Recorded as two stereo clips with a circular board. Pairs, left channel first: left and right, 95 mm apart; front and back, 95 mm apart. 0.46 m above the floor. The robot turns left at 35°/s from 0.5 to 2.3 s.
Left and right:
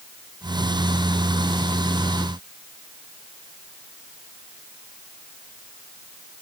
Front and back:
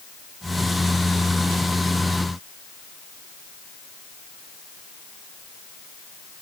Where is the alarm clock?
I don't hear an alarm clock.